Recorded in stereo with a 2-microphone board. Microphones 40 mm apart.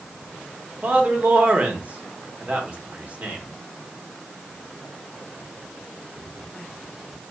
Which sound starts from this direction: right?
A man speaking, at 0.8 s.